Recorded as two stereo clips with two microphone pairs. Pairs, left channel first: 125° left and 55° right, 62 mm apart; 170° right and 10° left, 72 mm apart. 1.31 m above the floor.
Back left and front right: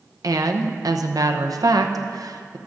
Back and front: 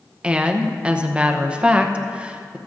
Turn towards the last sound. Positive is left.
turn(degrees=-65)